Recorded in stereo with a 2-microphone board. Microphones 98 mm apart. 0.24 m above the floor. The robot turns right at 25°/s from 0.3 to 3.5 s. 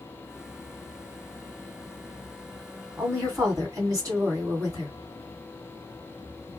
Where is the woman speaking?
30° right (ahead or behind), 1.9 m; by 4.9 s 35° right (ahead or behind), 1.9 m.